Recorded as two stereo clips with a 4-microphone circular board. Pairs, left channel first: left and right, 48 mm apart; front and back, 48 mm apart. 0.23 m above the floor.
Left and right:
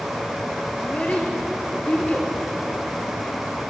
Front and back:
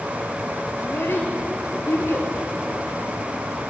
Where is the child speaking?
30° left, 3 m.